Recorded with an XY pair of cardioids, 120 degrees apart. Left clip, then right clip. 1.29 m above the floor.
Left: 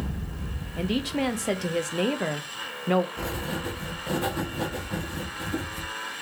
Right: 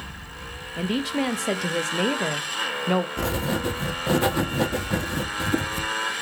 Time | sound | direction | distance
0.8 | a woman speaking | 10° right | 0.6 m
3.2 | writing | 50° right | 0.6 m